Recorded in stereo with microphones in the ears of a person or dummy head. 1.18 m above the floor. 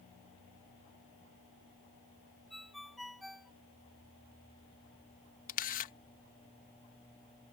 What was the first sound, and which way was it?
A ringtone, centre (ahead or behind).